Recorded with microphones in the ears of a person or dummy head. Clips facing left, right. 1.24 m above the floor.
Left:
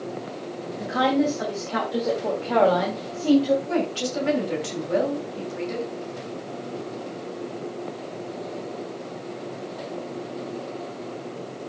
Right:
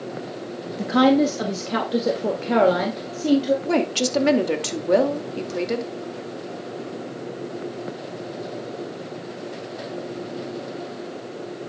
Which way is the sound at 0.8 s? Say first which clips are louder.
Right 5 dB; 60° right (ahead or behind).